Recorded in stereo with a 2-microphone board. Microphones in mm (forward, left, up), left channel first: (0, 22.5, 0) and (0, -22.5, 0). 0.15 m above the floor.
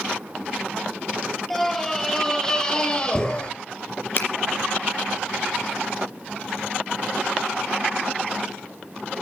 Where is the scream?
5° left (ahead or behind), 4 m; by 3.5 s 25° left (ahead or behind), 3.5 m.